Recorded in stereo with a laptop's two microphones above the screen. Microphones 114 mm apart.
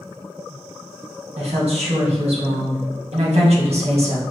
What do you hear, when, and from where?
1.4 s a woman speaking: 70° right (ahead or behind), 1.4 m